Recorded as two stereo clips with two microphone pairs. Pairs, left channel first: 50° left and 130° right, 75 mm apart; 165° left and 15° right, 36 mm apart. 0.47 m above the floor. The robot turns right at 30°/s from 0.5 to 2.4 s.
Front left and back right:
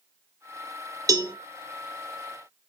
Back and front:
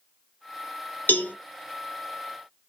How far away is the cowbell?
About 0.7 m.